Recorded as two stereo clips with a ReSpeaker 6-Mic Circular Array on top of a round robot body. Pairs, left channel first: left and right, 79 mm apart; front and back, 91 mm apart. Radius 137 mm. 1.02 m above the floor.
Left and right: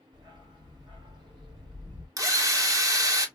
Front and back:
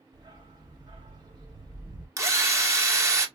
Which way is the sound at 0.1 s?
135° right.